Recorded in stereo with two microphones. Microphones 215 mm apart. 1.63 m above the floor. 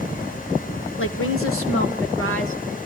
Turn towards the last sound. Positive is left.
turn(degrees=75)  # may be behind; listen again after turning